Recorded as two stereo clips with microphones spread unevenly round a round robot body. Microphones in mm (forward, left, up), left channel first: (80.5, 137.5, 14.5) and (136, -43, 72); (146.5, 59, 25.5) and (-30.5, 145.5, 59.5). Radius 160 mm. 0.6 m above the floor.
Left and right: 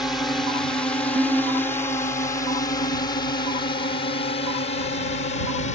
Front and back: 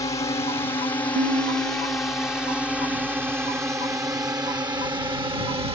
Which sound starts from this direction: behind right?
A guitar, at 1.1 s.